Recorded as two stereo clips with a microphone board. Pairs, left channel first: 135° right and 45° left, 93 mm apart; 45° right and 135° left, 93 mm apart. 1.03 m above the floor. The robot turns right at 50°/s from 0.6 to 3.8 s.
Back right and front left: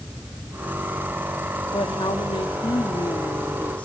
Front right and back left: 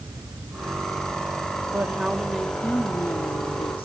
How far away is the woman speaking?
About 2 m.